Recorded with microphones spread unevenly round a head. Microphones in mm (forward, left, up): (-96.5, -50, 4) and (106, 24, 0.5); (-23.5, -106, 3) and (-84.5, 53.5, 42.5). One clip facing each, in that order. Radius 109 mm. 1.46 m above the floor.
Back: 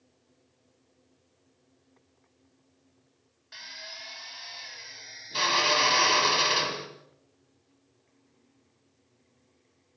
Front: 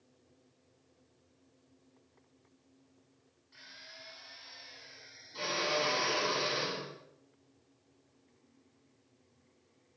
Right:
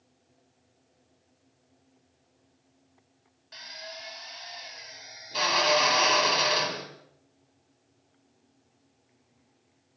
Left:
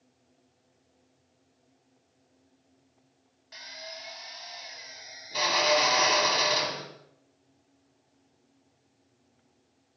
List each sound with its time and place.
3.5 s a drill: 165° right, 6.5 m